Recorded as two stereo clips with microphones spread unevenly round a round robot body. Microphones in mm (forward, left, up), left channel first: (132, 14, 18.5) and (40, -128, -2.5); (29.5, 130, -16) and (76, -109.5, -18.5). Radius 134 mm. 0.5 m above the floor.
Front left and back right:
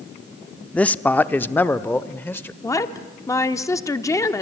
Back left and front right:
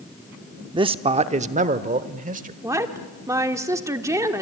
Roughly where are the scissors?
No scissors in this recording.